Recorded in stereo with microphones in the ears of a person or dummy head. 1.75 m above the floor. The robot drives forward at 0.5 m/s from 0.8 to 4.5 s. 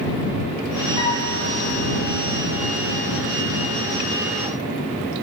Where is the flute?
25° left (ahead or behind), 0.8 m.